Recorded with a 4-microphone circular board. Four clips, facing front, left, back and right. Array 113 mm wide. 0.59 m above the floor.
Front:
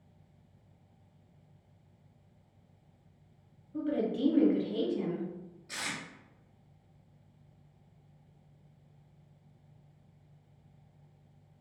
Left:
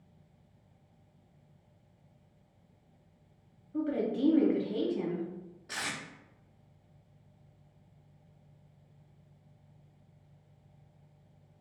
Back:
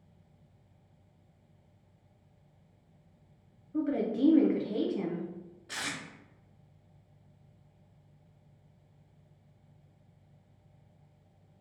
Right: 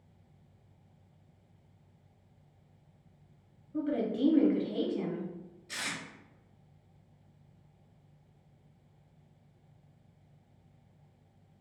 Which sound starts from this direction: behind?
A woman speaking, at 3.7 s.